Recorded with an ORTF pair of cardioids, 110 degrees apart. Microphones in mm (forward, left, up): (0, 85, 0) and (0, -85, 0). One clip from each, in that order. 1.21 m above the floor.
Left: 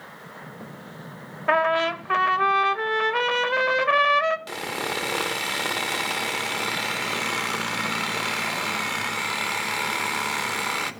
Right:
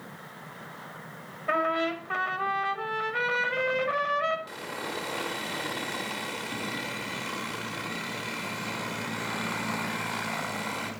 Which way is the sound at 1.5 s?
50° left.